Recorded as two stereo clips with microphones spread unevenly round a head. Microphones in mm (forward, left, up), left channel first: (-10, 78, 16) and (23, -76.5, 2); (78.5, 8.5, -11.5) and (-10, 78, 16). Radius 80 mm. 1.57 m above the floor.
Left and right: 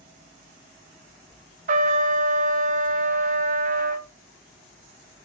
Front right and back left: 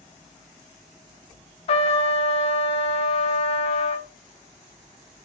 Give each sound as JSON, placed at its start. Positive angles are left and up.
{"t": 1.7, "sound": "a trumpet", "azimuth_deg": -45, "distance_m": 0.5}